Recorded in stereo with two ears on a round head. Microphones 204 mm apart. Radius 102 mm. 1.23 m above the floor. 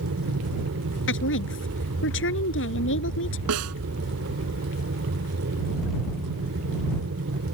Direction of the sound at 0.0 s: 60° right (ahead or behind).